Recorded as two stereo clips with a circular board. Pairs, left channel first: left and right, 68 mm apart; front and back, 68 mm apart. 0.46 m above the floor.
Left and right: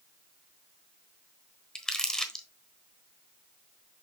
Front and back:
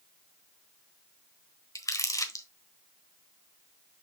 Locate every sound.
1.8 s crumpling: 10° left, 1.1 m